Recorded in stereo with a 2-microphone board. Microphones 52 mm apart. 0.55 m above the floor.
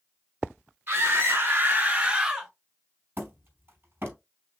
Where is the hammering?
45° right (ahead or behind), 3 m.